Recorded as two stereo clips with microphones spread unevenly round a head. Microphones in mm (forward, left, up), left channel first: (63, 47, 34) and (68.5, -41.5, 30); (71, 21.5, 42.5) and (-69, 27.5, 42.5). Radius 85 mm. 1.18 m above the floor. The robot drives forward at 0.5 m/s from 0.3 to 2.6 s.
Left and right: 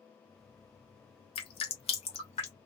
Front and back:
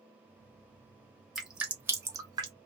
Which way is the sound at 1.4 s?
90° left.